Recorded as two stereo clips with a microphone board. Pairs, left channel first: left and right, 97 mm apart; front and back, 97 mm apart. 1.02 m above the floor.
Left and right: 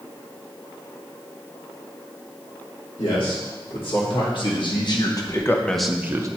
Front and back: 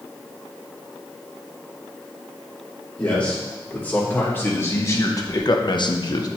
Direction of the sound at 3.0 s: 75° left.